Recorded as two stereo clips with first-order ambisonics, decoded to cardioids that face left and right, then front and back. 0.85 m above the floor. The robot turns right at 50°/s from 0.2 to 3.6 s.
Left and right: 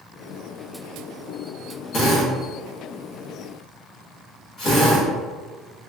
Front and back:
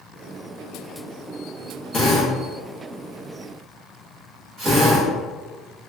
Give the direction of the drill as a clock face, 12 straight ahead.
10 o'clock.